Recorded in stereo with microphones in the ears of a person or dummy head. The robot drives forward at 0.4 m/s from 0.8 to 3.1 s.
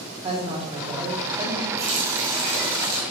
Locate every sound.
0.2 s a woman speaking: 30° right (ahead or behind), 1.2 m; by 1.7 s 25° right (ahead or behind), 1.6 m
1.8 s a running tap: 65° right (ahead or behind), 1.9 m; by 3.0 s 55° right (ahead or behind), 2 m